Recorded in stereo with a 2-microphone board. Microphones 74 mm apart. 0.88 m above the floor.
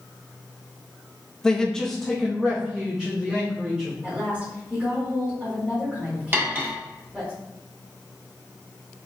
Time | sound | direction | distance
1.4 | a man speaking | 10° left (ahead or behind) | 0.7 m
4.0 | a woman speaking | 15° right (ahead or behind) | 2 m
6.3 | cutlery clinking | 30° right (ahead or behind) | 1.2 m